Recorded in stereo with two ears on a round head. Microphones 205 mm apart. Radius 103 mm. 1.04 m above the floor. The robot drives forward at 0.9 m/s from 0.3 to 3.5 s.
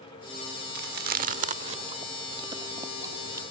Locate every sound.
0.8 s chewing: 45° right (ahead or behind); by 3.4 s 15° right (ahead or behind)